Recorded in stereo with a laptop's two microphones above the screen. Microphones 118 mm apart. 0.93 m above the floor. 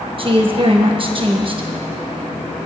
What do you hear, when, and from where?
0.2 s a woman speaking: 45° right (ahead or behind), 1.0 m